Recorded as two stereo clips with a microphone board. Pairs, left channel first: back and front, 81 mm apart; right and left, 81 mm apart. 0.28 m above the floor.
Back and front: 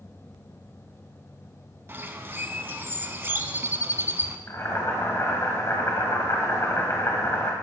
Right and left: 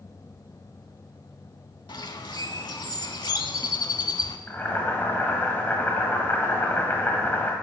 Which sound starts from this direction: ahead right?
A bird, at 1.9 s.